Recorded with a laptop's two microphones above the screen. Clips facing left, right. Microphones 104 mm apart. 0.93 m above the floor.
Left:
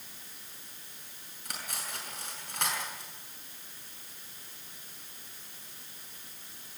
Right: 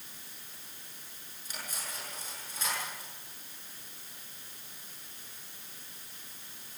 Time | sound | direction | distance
1.4 | cutlery clinking | 70° left (ahead or behind) | 7 m